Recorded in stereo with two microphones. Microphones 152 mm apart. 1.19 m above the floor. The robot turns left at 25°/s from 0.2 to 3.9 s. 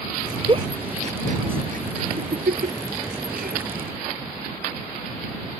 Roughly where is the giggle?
Right.